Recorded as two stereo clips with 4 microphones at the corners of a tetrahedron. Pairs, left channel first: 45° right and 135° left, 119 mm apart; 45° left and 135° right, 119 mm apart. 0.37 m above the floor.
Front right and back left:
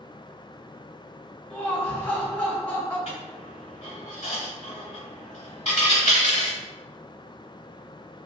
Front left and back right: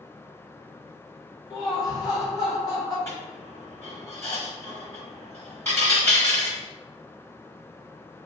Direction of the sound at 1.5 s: 25° left.